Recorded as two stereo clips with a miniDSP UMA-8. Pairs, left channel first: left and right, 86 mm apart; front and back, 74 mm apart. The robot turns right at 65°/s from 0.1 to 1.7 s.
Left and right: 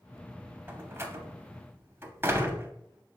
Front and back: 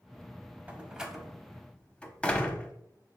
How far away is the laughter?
No laughter in this recording.